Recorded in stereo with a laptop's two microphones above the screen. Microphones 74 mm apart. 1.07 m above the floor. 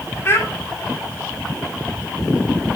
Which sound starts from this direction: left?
A child speaking, at 0.2 s.